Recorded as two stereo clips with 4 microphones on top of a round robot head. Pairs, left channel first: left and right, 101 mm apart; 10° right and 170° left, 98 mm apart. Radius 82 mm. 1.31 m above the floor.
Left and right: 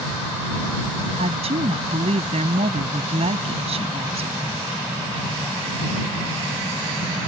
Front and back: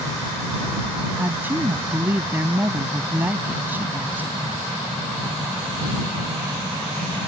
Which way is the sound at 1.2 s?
115° right.